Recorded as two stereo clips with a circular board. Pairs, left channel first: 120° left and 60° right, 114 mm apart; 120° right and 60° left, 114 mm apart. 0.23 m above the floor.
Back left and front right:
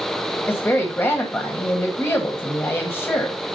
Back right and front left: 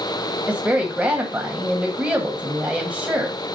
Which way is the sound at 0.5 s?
115° left.